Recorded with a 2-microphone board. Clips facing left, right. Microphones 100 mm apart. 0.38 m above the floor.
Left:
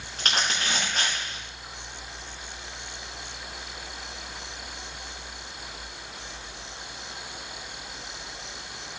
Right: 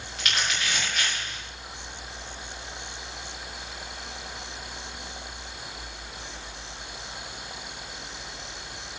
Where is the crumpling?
40° left (ahead or behind), 8 m.